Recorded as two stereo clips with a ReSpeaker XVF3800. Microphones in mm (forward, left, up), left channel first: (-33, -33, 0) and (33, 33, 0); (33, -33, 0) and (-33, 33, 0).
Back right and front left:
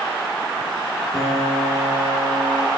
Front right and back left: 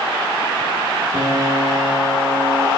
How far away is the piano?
About 2 m.